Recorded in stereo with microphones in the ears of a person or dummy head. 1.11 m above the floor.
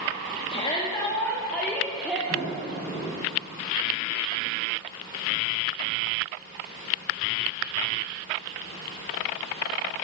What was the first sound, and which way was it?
A shout, 30° left (ahead or behind).